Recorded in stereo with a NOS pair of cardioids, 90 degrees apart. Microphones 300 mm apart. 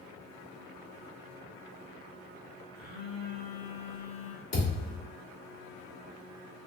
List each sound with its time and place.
2.8 s a phone buzzing: 60° left, 2 m
4.5 s a thud: 60° left, 2.5 m